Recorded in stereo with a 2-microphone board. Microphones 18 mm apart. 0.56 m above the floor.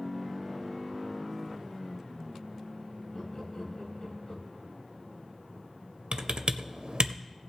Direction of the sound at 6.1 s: 65° right (ahead or behind).